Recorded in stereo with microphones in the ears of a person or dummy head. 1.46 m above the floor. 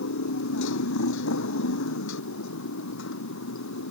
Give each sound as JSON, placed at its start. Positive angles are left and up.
{"t": 0.0, "sound": "a motorcycle", "side_deg": 65}